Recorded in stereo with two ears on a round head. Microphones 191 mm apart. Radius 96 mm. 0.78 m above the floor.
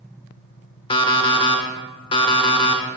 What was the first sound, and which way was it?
An alarm clock, 25° left (ahead or behind).